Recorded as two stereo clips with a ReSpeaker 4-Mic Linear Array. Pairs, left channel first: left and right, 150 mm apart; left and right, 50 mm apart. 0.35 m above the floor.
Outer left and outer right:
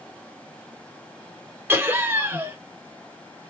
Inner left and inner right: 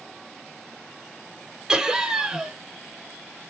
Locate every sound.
1.7 s laughter: 15° right (ahead or behind), 1.1 m